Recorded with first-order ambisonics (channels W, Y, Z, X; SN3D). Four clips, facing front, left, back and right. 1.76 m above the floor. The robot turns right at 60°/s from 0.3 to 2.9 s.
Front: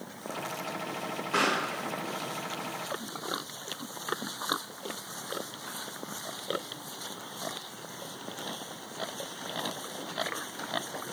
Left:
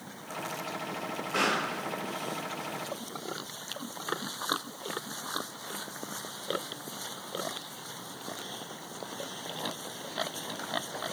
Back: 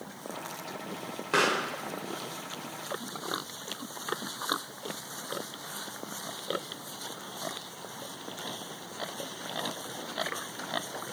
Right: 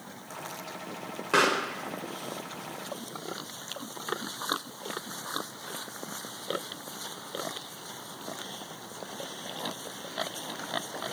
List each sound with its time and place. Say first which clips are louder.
1.3 s a pop: right 4 dB, back 1 dB; 120° right, 1.6 m; by 5.8 s 30° right, 1.6 m